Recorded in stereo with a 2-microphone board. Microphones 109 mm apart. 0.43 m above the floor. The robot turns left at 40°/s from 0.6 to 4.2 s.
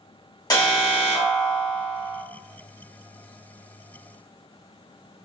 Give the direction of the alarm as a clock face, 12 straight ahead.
10 o'clock.